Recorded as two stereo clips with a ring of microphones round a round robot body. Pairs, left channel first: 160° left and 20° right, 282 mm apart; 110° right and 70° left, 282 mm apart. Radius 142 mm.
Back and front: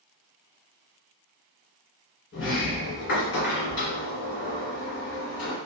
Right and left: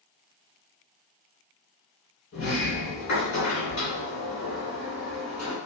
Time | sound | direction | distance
2.3 | a sliding door | 160° right | 1.9 m